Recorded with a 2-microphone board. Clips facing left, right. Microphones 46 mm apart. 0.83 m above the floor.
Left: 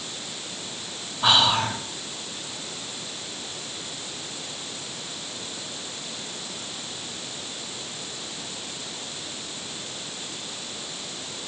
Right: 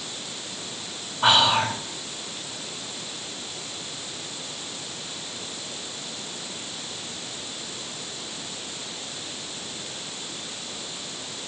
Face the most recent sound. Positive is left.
turn(degrees=-55)  # may be behind; listen again after turning